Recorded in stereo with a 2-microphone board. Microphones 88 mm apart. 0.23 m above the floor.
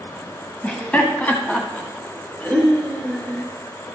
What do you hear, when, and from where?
0.6 s laughter: 15° left (ahead or behind), 1.2 m